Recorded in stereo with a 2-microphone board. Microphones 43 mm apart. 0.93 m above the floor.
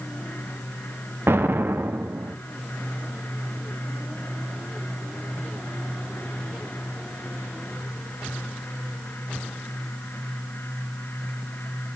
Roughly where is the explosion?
Right.